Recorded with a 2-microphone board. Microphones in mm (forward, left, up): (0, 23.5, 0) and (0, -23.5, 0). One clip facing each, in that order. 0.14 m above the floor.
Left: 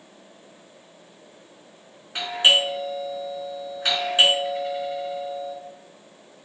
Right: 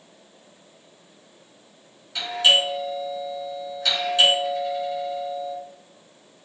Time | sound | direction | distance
2.1 | a doorbell | 35° left (ahead or behind) | 2 m